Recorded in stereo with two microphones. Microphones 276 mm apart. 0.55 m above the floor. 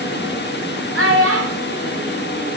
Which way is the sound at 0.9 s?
55° right (ahead or behind).